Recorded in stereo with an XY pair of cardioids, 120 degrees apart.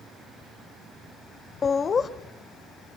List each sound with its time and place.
1.6 s laughter: 35° left, 1.3 m